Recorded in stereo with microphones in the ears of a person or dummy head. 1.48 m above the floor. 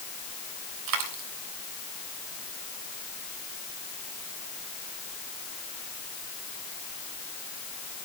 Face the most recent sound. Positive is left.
turn(degrees=-70)  # may be behind; listen again after turning